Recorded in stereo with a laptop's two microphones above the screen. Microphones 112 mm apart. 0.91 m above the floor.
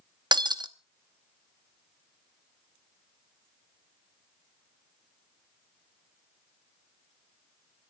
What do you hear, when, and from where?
0.3 s breaking glass: 45° right (ahead or behind), 0.8 m